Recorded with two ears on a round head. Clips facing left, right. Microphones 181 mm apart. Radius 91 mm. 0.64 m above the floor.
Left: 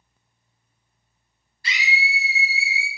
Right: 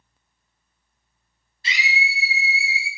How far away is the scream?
About 1.1 m.